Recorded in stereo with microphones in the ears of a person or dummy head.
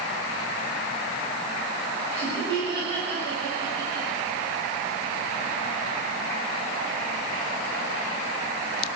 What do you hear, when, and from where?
2.1 s laughter: 25° right (ahead or behind), 9.5 m